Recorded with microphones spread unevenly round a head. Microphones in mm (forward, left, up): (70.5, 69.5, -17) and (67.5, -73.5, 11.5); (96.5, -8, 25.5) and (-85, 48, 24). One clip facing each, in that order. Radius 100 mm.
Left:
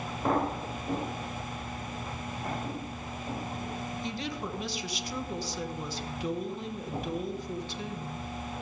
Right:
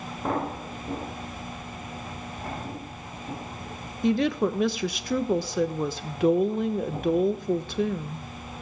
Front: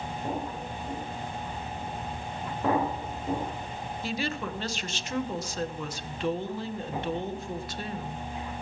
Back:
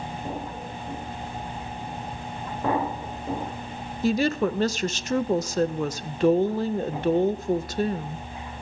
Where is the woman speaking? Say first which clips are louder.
Right 17 dB, back 11 dB; 145° right, 1.0 m.